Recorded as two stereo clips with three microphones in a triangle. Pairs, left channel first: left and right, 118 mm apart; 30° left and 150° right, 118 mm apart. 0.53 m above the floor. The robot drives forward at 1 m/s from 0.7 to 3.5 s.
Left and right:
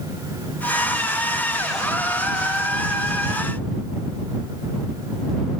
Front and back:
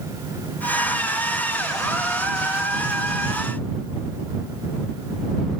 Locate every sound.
Only background noise.